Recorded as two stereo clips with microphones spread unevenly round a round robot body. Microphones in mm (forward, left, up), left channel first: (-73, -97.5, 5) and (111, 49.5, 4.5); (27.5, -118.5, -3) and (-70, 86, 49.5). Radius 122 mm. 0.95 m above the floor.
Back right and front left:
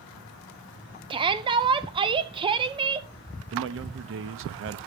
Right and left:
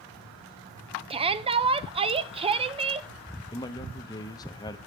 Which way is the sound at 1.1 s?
55° left.